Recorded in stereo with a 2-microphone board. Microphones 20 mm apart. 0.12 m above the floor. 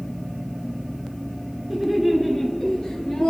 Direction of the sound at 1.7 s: 5° right (ahead or behind).